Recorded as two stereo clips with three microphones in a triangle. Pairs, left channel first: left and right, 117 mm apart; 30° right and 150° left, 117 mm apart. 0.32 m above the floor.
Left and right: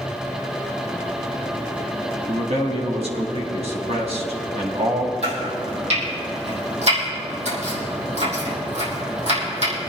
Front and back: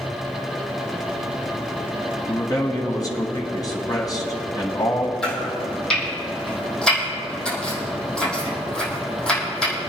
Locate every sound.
2.3 s a man speaking: 85° right, 1.9 m
5.2 s chopping: 110° right, 4.5 m